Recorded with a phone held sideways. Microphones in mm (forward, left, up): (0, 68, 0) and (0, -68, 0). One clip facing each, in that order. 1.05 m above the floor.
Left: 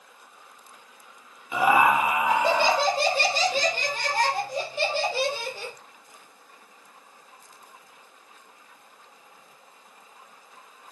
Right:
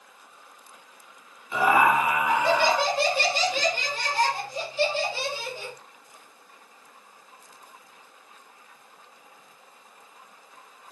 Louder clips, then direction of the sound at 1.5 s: Even; 10° left (ahead or behind).